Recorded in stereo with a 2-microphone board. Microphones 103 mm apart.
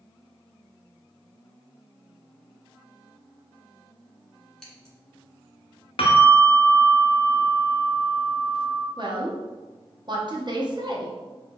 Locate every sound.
4.6 s scissors: 5° left (ahead or behind), 1.3 m
6.0 s a bell: 65° left (ahead or behind), 0.7 m
9.0 s a woman speaking: 45° right (ahead or behind), 0.8 m